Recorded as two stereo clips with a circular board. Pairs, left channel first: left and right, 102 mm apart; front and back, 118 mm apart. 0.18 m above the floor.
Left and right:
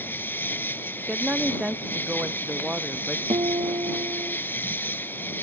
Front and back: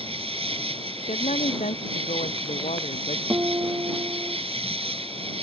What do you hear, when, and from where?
0.0 s an insect: 155° left
1.1 s a woman speaking: 10° right
3.3 s a guitar: 115° right